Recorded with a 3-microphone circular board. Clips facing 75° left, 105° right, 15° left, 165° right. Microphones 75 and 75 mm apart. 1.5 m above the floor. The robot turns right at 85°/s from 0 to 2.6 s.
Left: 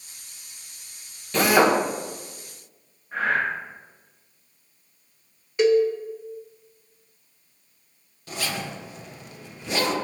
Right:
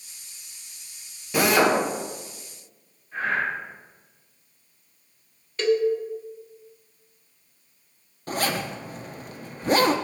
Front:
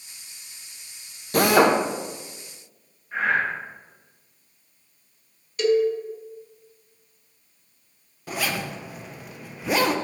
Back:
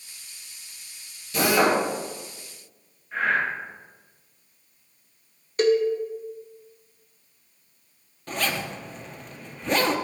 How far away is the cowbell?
About 0.7 m.